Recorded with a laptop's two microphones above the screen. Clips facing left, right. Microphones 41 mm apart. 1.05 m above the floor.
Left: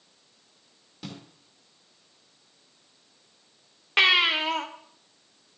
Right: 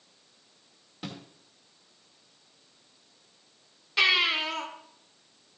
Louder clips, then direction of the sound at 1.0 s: Right 1 dB; 15° right (ahead or behind).